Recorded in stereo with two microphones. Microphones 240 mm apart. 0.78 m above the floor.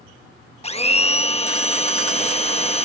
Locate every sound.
0.6 s a blender: 25° left (ahead or behind)